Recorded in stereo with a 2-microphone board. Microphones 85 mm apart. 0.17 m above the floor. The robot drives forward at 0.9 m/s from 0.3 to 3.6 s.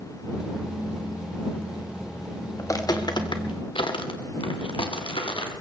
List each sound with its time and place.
2.6 s footsteps: 35° left (ahead or behind), 2 m; by 5.5 s 80° left, 3 m